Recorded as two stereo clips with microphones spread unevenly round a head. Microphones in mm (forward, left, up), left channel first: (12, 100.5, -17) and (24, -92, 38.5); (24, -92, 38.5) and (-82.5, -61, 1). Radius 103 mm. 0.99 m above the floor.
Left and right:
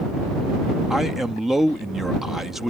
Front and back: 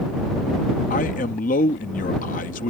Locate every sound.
0.9 s a man speaking: 5° left